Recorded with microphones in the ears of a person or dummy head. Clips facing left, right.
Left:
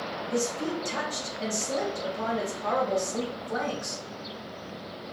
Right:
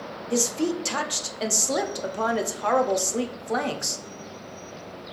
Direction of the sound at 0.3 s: 80° right.